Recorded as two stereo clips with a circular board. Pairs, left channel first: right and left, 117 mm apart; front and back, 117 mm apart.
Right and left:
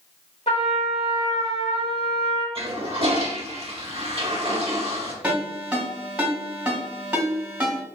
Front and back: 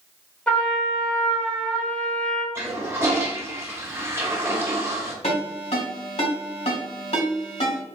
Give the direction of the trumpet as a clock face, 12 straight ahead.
3 o'clock.